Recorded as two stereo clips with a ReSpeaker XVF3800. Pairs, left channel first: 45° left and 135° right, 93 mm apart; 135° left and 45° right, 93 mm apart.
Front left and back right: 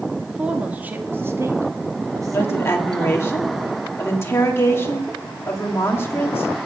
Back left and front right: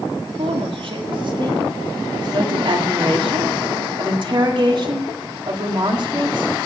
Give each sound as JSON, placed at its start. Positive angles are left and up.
{"t": 0.3, "sound": "a woman speaking", "azimuth_deg": -55, "distance_m": 1.8}
{"t": 2.3, "sound": "a woman speaking", "azimuth_deg": -15, "distance_m": 2.5}